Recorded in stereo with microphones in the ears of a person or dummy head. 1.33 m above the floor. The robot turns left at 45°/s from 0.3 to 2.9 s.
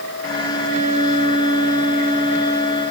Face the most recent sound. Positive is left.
No sound to turn to.